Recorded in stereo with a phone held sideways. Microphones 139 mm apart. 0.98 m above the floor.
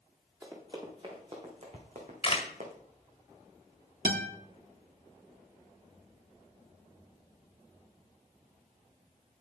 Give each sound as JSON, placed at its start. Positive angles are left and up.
{"t": 0.4, "sound": "running footsteps", "side_deg": -25, "distance_m": 4.0}
{"t": 1.7, "sound": "a camera shutter", "side_deg": 40, "distance_m": 1.7}
{"t": 4.0, "sound": "a guitar", "side_deg": -80, "distance_m": 1.2}